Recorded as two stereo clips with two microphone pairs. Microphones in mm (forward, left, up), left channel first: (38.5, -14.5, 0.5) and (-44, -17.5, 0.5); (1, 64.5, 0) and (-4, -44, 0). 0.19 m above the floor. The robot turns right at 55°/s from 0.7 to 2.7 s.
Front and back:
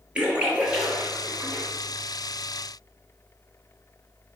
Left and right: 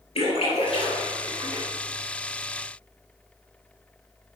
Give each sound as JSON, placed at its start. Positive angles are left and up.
{"t": 0.1, "sound": "a splash", "azimuth_deg": 105, "distance_m": 3.5}